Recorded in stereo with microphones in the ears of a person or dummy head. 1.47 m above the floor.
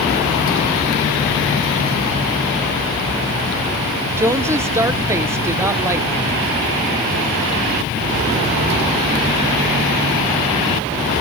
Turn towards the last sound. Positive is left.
turn(degrees=-15)  # may be behind; listen again after turning